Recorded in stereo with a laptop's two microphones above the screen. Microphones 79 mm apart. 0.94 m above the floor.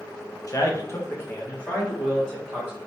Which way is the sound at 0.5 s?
45° left (ahead or behind).